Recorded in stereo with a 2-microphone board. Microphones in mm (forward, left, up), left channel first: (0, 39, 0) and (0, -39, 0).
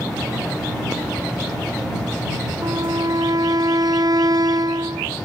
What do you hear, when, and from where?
2.6 s a violin: 60° right (ahead or behind)